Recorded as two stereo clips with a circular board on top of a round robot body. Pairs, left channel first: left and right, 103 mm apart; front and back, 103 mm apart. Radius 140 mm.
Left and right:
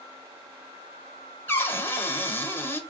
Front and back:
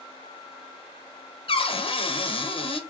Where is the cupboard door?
20° left, 1.6 m.